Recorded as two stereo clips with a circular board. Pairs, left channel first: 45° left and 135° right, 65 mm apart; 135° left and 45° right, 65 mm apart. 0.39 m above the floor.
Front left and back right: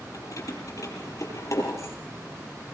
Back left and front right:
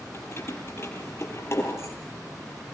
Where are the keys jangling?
80° left, 8 m; by 1.9 s 90° left, 7 m.